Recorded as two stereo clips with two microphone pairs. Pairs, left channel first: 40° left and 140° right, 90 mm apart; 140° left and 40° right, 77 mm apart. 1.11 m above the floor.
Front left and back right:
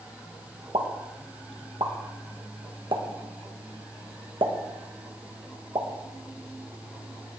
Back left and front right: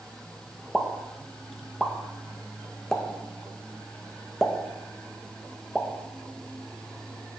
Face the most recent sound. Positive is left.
turn(degrees=-130)